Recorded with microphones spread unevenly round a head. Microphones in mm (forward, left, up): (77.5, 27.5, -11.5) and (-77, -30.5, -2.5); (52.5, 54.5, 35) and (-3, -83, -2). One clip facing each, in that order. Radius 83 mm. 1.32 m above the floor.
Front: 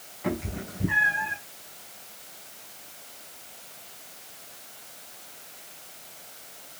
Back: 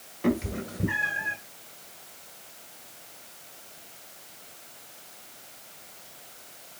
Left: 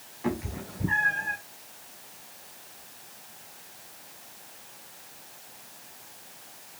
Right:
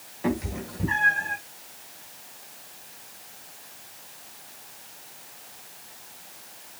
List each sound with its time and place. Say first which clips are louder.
0.2 s a cat meowing: back 4 dB, right 4 dB; 170° right, 3 m; by 1.4 s straight behind, 3 m